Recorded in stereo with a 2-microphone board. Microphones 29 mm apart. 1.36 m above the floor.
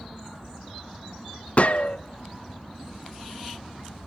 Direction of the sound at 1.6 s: 50° left (ahead or behind).